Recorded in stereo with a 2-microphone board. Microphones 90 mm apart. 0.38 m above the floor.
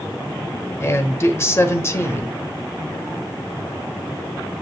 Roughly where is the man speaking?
Left.